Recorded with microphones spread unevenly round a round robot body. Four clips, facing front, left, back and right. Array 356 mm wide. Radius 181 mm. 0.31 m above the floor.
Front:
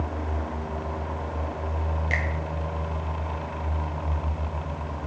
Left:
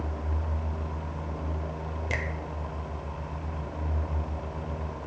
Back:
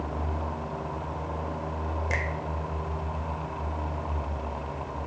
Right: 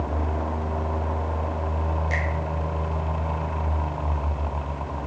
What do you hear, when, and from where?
2.1 s a finger snap: 130° left, 1.0 m